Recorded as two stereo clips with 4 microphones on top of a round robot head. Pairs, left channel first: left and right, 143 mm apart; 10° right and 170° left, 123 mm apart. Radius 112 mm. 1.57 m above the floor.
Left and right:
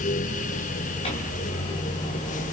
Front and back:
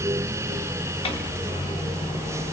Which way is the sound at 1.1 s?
30° left.